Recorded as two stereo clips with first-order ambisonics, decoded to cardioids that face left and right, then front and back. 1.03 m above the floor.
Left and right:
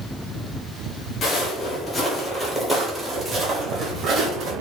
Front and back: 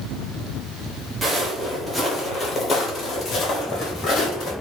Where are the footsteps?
120° left, 1.2 m; by 4.5 s 50° right, 1.7 m.